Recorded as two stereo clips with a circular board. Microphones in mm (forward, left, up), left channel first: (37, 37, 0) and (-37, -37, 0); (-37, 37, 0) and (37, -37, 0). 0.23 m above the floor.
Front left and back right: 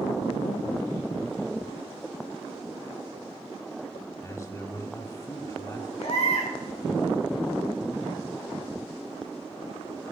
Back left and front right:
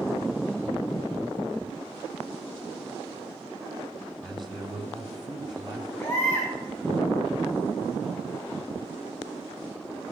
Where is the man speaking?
45° left, 1.1 m.